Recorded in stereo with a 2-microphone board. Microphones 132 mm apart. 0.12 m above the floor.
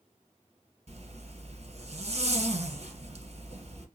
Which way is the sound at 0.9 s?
50° right (ahead or behind).